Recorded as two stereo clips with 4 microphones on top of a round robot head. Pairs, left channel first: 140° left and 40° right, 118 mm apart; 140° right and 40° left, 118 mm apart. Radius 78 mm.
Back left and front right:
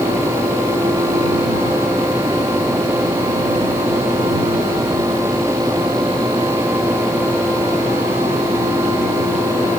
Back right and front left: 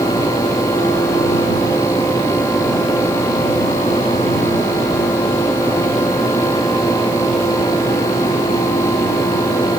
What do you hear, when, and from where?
Only background noise.